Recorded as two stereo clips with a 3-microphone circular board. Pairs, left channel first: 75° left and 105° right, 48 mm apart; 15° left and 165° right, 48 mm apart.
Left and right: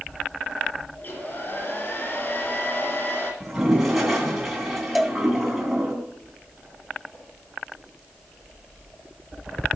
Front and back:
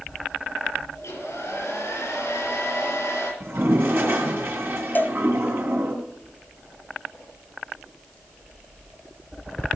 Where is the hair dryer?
35° left, 6 m.